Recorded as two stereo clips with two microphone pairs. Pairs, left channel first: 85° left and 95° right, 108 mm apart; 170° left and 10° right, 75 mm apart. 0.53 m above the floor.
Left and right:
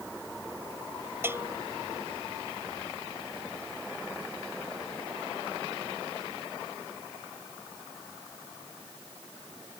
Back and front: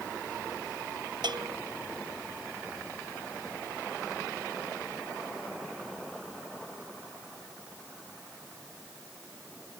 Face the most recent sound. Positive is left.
turn(degrees=-25)